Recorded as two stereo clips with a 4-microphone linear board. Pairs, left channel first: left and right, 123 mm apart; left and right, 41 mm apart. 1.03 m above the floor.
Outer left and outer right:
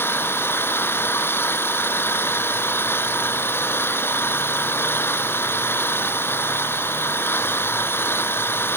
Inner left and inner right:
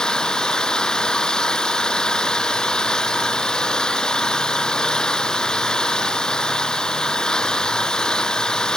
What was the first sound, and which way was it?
An engine running, 20° left (ahead or behind).